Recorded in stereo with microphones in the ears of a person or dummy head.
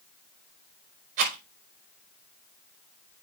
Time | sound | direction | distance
1.2 | a rattle | 50° right (ahead or behind) | 4.5 m